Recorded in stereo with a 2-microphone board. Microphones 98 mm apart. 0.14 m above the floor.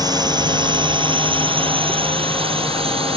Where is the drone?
45° right (ahead or behind); by 3.2 s 70° right (ahead or behind).